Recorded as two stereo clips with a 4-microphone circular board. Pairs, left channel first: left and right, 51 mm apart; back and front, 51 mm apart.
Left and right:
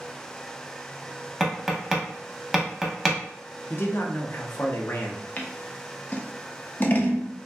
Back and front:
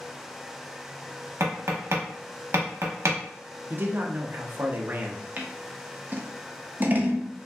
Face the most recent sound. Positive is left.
turn(degrees=45)